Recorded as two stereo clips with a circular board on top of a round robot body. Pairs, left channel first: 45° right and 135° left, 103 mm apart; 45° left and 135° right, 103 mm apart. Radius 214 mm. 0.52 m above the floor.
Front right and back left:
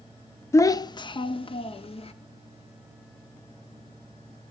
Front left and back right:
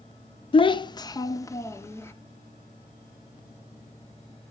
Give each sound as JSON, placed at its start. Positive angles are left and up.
{"t": 0.5, "sound": "a child speaking", "azimuth_deg": 20, "distance_m": 0.6}